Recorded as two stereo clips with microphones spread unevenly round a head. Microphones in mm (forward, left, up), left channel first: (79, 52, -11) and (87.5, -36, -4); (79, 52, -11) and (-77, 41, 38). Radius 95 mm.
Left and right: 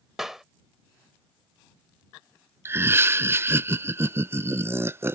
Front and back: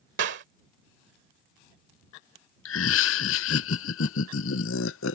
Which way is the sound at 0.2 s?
170° right.